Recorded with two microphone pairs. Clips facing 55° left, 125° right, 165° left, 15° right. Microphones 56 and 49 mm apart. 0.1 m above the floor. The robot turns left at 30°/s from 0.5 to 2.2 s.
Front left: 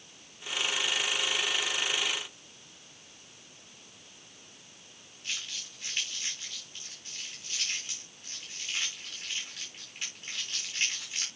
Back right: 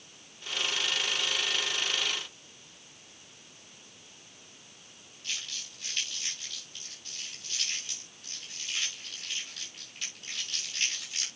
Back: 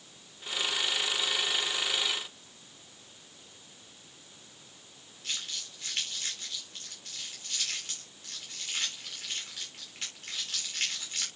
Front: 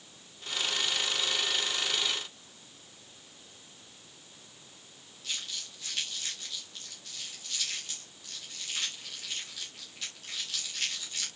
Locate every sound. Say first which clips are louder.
5.2 s crumpling: even, even; 115° left, 9 m